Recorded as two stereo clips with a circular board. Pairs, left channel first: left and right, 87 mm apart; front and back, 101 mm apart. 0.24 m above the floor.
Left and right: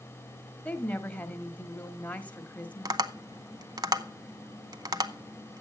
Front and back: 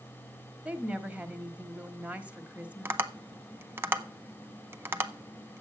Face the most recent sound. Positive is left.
turn(degrees=-115)